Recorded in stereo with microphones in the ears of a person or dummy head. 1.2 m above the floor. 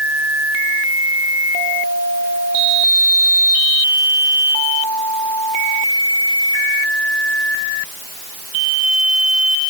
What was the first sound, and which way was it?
Only background noise.